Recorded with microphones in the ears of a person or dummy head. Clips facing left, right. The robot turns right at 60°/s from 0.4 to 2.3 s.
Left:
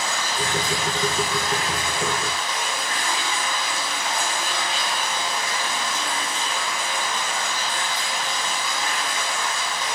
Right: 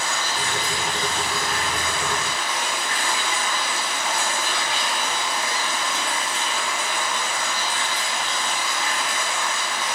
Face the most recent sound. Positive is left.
turn(degrees=-170)